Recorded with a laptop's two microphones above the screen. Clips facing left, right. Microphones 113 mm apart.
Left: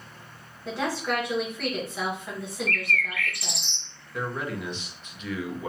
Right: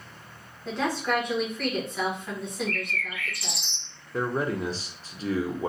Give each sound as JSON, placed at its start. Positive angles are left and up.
{"t": 0.7, "sound": "a woman speaking", "side_deg": 0, "distance_m": 1.3}
{"t": 2.7, "sound": "a bird", "side_deg": 60, "distance_m": 0.5}
{"t": 4.1, "sound": "a man speaking", "side_deg": -35, "distance_m": 0.7}